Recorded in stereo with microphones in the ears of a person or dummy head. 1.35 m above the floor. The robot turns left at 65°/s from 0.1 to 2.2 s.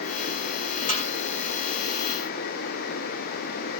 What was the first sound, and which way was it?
A snare drum, 45° left (ahead or behind).